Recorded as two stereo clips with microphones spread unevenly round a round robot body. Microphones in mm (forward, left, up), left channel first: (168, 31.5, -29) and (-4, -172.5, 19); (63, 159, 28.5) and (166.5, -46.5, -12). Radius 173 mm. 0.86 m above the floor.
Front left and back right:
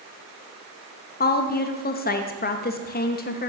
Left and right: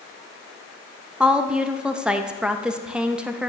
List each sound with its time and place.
1.2 s a woman speaking: 15° left, 0.7 m